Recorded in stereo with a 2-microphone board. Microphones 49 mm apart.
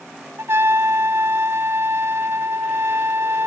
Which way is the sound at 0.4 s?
55° right (ahead or behind).